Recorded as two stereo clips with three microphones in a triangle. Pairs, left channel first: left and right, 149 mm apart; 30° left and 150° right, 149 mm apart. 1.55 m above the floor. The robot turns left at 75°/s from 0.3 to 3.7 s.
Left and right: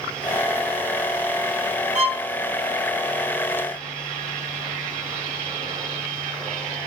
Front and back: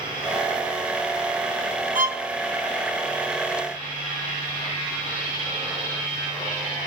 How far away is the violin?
About 0.9 m.